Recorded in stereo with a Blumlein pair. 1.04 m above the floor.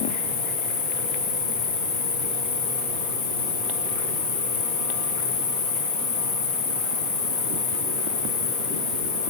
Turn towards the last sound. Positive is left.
turn(degrees=55)